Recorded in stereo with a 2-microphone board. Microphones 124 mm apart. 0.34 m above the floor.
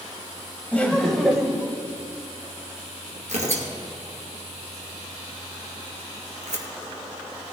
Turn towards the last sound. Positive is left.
turn(degrees=-65)  # may be behind; listen again after turning